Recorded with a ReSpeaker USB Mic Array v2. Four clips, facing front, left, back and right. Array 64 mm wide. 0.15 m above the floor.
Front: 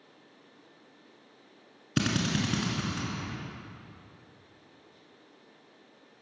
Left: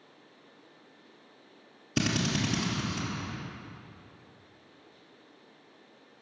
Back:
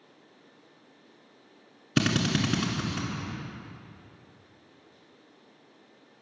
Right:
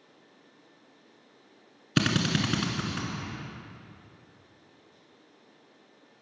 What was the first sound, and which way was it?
A drill, 110° right.